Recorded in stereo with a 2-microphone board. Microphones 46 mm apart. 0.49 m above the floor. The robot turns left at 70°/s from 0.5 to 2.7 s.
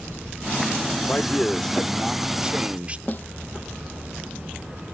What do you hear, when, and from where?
1.1 s a man speaking: 60° left; by 3.0 s 50° right
3.1 s a snare drum: 40° left (ahead or behind)